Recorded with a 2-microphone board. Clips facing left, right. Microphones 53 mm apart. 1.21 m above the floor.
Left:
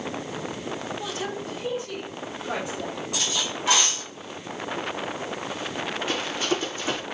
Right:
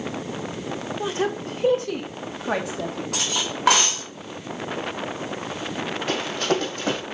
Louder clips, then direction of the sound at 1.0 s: Right 6 dB; 25° right (ahead or behind).